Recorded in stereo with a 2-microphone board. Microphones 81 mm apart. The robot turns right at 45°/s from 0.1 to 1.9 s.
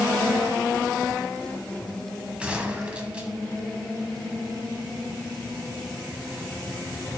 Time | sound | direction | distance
2.4 | a gunshot | 15° right (ahead or behind) | 1.1 m